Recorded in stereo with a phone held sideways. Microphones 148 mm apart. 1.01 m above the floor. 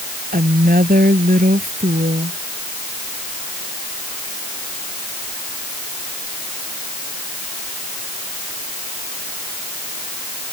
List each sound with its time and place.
0.3 s a woman speaking: 85° right